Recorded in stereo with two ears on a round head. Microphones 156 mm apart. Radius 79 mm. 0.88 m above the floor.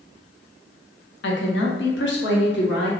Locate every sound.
1.2 s a woman speaking: 65° left (ahead or behind), 0.7 m; by 2.9 s 70° left (ahead or behind), 1.4 m